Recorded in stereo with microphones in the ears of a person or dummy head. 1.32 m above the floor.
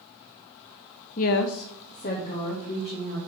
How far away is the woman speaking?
About 0.5 m.